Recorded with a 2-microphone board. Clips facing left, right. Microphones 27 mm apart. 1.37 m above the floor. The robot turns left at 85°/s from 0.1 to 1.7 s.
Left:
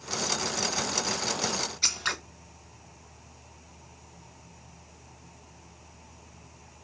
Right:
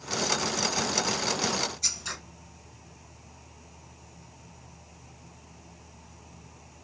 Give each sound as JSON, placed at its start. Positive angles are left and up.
{"t": 1.8, "sound": "scissors", "side_deg": 50, "distance_m": 0.5}